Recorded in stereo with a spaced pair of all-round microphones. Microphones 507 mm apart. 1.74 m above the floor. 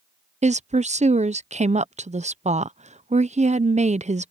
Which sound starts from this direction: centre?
A woman speaking, at 0.4 s.